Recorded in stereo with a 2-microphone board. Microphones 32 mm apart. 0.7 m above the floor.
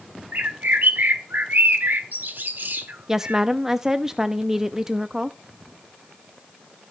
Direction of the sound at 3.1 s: 20° right (ahead or behind).